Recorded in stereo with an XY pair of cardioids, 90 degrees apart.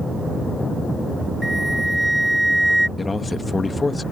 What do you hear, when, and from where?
1.4 s a flute: 5° right
3.0 s a man speaking: 30° left